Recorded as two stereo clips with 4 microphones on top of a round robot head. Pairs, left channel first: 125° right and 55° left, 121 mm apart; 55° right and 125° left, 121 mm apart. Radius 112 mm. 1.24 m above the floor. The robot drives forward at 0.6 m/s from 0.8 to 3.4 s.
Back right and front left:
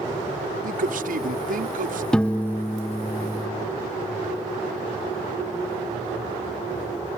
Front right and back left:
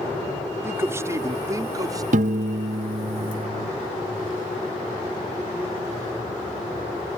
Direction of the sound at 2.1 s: 150° left.